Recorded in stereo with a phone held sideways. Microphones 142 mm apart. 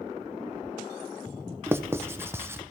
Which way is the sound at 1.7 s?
15° right (ahead or behind).